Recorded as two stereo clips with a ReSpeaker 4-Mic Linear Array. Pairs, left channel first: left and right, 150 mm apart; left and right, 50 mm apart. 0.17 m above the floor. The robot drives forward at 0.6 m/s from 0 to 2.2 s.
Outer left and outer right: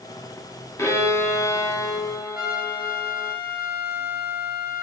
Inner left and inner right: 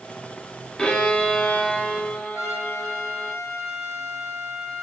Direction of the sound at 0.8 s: 20° left (ahead or behind).